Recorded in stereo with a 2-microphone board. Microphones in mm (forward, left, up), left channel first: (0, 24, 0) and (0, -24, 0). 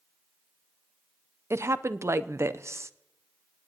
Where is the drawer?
No drawer in this recording.